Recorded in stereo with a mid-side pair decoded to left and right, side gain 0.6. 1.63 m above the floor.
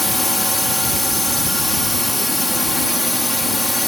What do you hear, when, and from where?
0.0 s a drone: 5° left